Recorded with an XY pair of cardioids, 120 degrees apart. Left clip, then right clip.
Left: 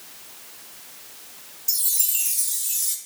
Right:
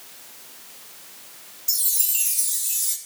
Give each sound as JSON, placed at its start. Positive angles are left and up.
{"t": 1.7, "sound": "a chime", "azimuth_deg": 0, "distance_m": 3.0}